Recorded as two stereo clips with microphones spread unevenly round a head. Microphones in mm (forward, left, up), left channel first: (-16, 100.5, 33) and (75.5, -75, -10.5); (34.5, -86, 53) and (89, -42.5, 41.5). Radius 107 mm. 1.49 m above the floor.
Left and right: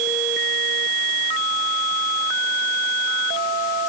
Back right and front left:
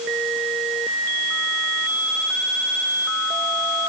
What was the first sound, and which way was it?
Only background noise.